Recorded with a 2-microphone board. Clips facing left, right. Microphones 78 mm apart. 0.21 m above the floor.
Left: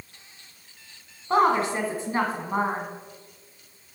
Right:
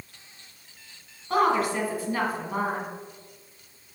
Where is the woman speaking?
30° left (ahead or behind), 1.4 m.